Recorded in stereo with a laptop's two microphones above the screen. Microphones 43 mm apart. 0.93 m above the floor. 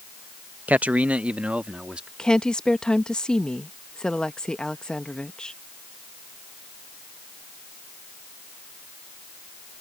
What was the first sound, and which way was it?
A man speaking, 40° right (ahead or behind).